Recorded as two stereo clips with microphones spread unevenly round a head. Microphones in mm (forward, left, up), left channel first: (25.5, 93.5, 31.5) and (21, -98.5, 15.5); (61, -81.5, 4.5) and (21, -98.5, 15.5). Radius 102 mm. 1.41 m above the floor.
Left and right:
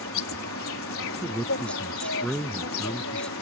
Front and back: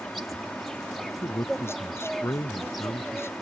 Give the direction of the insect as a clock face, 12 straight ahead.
8 o'clock.